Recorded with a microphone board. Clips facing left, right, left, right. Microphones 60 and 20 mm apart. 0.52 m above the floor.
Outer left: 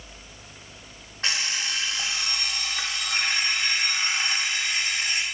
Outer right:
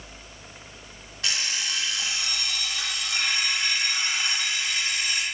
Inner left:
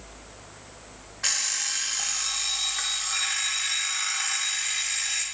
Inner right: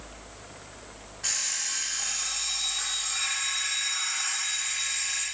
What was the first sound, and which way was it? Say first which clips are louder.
An alarm clock: outer left 2 dB, inner left 3 dB; 40° left (ahead or behind).